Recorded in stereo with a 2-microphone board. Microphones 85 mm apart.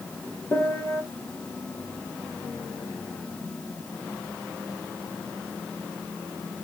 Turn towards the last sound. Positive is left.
turn(degrees=35)  # may be behind; listen again after turning